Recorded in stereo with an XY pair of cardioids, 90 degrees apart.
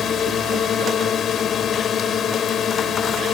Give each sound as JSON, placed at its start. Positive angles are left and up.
{"t": 0.0, "sound": "a drone", "azimuth_deg": 65}